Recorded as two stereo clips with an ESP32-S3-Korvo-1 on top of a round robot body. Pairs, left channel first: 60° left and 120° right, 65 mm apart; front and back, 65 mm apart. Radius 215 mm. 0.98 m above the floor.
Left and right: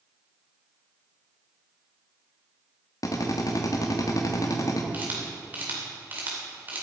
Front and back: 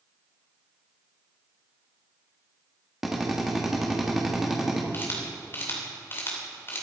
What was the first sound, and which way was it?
A drill, 95° left.